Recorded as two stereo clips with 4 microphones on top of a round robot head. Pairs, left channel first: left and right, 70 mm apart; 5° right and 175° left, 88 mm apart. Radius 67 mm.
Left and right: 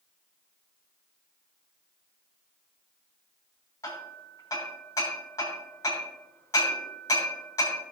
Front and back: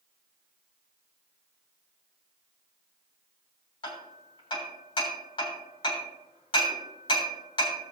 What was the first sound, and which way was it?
Hammering, 30° left.